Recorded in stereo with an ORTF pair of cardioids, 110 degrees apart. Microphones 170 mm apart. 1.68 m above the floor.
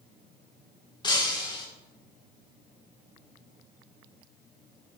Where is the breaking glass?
25° left, 3.5 m.